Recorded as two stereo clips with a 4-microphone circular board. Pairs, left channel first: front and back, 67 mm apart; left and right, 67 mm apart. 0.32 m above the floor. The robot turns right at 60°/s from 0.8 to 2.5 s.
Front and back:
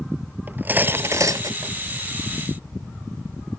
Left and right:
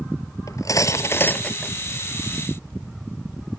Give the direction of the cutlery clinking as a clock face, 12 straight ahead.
8 o'clock.